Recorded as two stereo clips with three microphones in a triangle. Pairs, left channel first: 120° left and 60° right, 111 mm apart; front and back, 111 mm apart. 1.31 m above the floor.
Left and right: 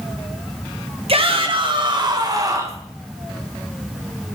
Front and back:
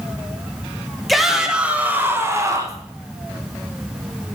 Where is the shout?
90° right, 1.6 m; by 2.8 s 125° right, 1.8 m.